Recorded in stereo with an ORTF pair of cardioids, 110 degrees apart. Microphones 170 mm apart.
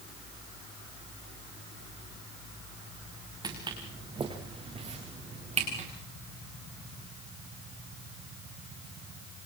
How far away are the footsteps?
About 6.5 m.